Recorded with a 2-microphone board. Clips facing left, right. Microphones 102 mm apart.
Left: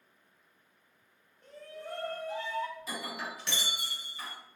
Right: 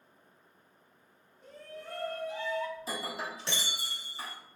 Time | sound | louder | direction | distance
1.4 | a shout | left 1 dB | 5° right (ahead or behind) | 0.8 m
2.8 | breaking glass | right 2 dB | 35° right (ahead or behind) | 0.7 m